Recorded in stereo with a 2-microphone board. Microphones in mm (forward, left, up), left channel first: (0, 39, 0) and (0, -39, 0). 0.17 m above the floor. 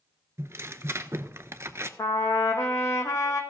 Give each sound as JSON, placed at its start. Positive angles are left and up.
{"t": 0.4, "sound": "tearing paper", "side_deg": -35, "distance_m": 0.7}
{"t": 2.0, "sound": "a trumpet", "side_deg": 40, "distance_m": 1.6}